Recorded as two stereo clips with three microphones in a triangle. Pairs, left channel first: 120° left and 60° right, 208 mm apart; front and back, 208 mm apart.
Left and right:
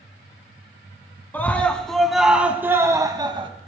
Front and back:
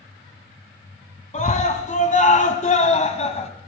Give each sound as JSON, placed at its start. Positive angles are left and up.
{"t": 1.3, "sound": "a scream", "azimuth_deg": 45, "distance_m": 1.6}